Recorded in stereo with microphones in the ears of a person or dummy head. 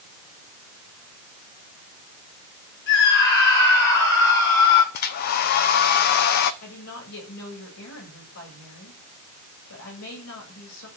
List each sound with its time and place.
2.9 s a scream: 60° left (ahead or behind), 6.5 m; by 4.8 s 65° left (ahead or behind), 5 m
4.9 s a hair dryer: 50° left (ahead or behind), 0.9 m
6.6 s a woman speaking: 85° left, 8 m